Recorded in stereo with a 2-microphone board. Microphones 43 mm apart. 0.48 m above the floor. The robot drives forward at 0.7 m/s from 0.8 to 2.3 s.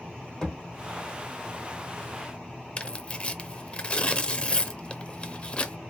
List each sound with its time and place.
0.4 s a thud: 15° left (ahead or behind), 2.5 m
2.8 s tearing paper: 30° left (ahead or behind), 0.6 m